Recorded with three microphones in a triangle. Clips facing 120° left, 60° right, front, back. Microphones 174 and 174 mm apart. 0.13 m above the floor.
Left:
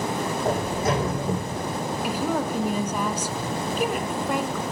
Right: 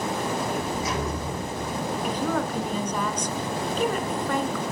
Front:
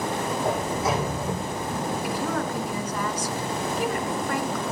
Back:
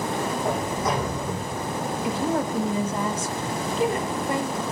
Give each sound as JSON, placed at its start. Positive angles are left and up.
{"t": 0.5, "sound": "a sliding door", "azimuth_deg": 85, "distance_m": 8.5}
{"t": 2.0, "sound": "a woman speaking", "azimuth_deg": -165, "distance_m": 1.5}